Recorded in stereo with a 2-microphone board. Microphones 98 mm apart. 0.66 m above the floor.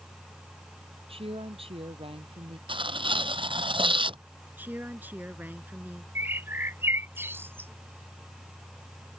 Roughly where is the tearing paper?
Right.